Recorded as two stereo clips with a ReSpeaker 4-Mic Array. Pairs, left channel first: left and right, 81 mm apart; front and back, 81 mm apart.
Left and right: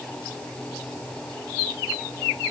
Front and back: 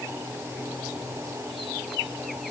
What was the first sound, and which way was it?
Only background noise.